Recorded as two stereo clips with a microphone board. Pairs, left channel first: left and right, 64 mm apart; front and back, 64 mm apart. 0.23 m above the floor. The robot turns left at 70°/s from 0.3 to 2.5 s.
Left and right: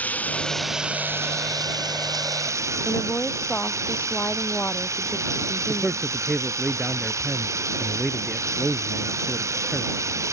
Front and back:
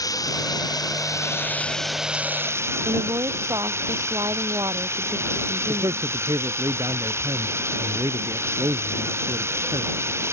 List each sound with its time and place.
0.0 s running water: 25° left; by 10.3 s 130° right
2.9 s a woman speaking: 155° left
5.7 s a man speaking: straight behind